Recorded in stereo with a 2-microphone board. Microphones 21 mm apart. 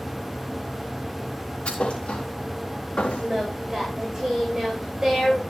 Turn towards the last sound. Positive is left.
turn(degrees=-25)  # may be behind; listen again after turning